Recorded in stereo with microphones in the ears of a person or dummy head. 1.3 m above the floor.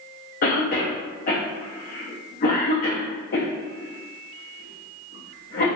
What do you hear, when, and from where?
0.4 s a cough: 45° left (ahead or behind), 0.6 m